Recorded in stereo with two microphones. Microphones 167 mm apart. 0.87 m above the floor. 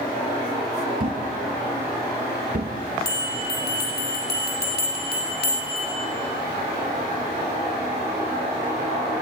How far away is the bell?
About 6 m.